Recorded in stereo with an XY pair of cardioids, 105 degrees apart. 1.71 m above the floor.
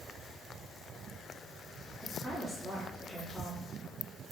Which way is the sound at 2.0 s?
5° right.